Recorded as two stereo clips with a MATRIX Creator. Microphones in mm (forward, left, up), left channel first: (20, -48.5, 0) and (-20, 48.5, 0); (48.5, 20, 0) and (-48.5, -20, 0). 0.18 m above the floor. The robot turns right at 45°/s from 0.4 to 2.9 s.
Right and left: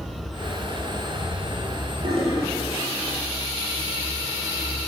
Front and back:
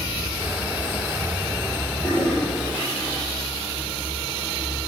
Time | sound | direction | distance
2.0 | a toilet flushing | 95° left | 5 m